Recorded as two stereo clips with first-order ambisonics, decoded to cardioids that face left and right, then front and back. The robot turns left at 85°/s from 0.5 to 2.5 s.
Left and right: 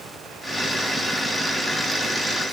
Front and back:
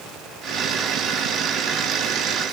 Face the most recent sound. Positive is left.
No sound to turn to.